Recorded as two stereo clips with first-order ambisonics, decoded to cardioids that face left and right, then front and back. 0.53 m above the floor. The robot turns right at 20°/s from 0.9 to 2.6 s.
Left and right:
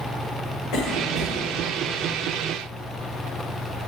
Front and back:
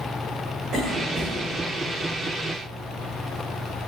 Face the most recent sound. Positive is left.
turn(degrees=160)